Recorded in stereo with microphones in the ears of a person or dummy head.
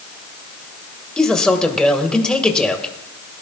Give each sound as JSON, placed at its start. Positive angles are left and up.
{"t": 1.2, "sound": "a man speaking", "side_deg": 0, "distance_m": 1.7}